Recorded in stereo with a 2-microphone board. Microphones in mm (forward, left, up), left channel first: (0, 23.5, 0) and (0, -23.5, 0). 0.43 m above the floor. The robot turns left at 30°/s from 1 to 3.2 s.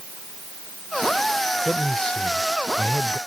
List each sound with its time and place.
1.6 s a man speaking: 170° left; by 3.2 s 125° left